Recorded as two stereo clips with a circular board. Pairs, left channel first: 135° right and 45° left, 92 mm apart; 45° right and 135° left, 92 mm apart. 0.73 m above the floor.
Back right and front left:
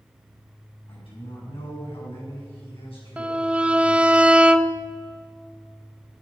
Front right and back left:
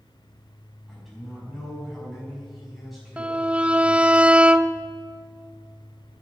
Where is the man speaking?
135° right, 5 m.